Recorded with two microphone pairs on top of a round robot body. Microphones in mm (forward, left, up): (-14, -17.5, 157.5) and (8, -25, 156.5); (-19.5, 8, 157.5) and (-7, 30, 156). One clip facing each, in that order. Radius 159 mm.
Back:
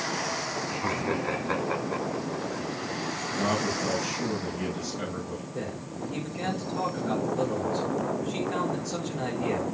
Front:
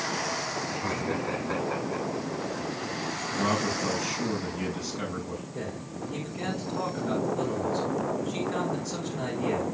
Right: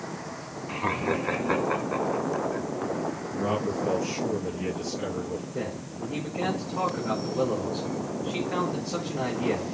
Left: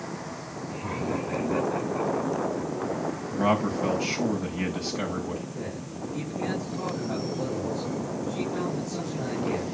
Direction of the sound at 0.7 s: 125° right.